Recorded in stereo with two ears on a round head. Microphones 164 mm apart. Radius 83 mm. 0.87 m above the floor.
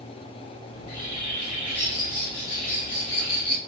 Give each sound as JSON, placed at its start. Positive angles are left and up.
{"t": 0.7, "sound": "a bird", "side_deg": 35, "distance_m": 2.5}